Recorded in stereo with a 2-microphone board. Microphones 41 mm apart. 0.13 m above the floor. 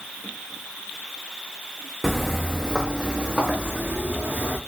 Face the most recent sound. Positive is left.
turn(degrees=-30)  # may be behind; listen again after turning